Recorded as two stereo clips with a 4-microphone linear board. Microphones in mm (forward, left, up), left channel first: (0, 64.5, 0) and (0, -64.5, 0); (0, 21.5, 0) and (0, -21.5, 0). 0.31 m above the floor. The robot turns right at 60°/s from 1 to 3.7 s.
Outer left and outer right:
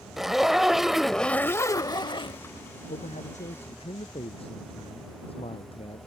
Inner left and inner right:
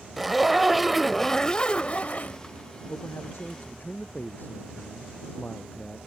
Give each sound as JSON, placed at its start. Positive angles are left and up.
{"t": 0.2, "sound": "a zipper", "azimuth_deg": -5}
{"t": 2.9, "sound": "a man speaking", "azimuth_deg": 85}